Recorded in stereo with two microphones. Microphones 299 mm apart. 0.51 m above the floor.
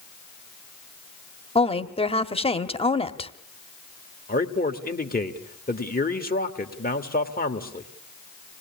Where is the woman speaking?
20° left (ahead or behind), 1.0 m.